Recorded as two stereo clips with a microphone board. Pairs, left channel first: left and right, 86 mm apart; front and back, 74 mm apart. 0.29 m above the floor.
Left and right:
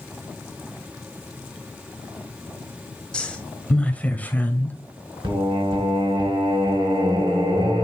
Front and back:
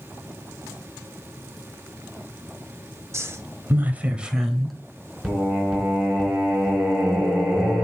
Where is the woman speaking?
160° left, 1.7 m; by 4.8 s 80° left, 1.4 m.